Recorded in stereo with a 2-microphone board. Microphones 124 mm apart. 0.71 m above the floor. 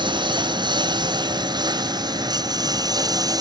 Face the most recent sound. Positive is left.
turn(degrees=-30)  # may be behind; listen again after turning